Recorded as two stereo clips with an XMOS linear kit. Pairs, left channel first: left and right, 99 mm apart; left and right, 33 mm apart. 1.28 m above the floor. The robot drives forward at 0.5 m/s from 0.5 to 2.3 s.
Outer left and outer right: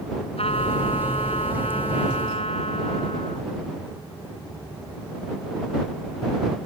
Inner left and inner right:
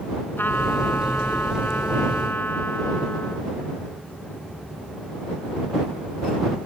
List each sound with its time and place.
0.4 s a trumpet: 85° left